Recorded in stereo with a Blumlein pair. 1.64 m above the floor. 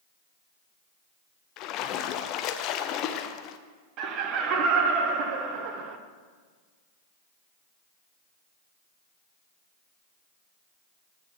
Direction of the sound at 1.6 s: 35° left.